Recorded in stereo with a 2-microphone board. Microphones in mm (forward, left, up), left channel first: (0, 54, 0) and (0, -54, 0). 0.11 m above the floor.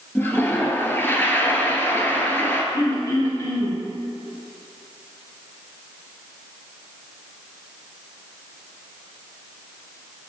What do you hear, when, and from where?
0.1 s a toilet flushing: 20° left (ahead or behind), 0.9 m
2.7 s throat clearing: 35° left (ahead or behind), 1.6 m